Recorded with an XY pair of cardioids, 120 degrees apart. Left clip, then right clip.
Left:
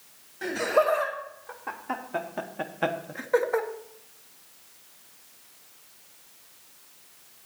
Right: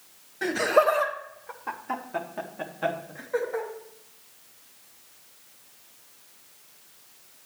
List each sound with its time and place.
0.4 s laughter: 25° right, 1.4 m; by 3.7 s 60° left, 1.1 m